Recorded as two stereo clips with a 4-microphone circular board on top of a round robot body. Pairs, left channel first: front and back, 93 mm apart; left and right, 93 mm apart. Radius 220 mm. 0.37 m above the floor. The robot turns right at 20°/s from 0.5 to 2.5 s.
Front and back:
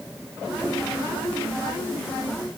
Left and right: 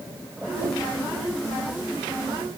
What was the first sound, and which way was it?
Only background noise.